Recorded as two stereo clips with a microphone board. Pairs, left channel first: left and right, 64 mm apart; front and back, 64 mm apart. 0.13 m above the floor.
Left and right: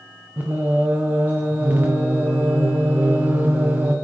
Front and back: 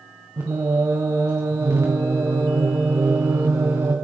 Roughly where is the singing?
Behind right.